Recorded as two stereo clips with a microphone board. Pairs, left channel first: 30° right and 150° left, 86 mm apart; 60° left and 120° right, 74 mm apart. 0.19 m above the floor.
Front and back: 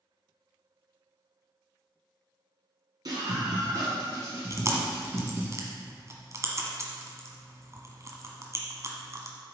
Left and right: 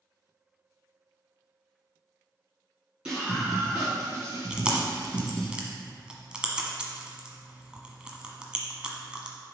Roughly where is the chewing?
Behind.